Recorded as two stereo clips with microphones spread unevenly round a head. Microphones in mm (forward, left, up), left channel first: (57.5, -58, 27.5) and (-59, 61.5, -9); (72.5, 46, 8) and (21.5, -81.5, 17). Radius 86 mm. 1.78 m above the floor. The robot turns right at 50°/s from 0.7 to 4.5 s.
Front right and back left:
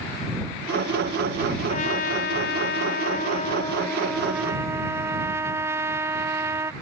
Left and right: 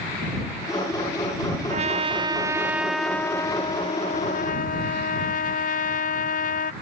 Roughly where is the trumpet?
Right.